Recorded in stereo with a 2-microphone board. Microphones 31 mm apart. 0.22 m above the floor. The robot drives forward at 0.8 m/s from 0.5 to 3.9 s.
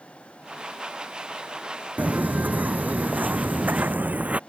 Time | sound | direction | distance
2.0 | footsteps | 65° right (ahead or behind) | ?